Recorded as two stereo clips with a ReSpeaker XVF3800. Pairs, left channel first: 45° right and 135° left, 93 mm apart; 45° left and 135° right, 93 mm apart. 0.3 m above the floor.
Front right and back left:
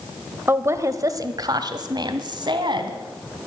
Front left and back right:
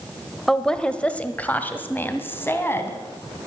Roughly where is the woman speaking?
Behind left.